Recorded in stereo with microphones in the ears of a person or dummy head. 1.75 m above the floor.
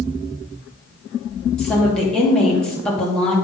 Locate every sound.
1.6 s a woman speaking: 5° left (ahead or behind), 2.5 m